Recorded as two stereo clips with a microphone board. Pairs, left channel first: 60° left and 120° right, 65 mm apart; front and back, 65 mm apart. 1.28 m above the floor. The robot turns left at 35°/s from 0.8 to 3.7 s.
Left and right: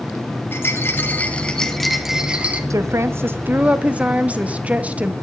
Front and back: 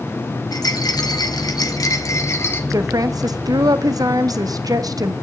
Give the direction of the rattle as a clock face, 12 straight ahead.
12 o'clock.